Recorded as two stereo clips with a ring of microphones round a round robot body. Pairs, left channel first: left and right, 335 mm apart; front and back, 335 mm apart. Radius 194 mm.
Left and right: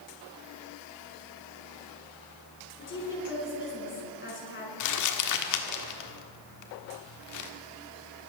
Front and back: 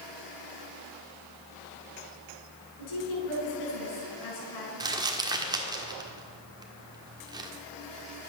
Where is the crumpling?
105° left, 1.5 m.